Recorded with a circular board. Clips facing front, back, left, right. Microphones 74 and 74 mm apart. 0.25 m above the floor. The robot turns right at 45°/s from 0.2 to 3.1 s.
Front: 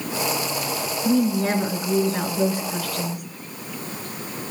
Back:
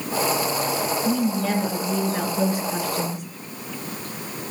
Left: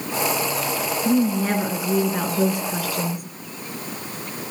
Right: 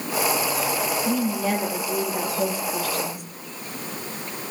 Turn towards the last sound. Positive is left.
turn(degrees=125)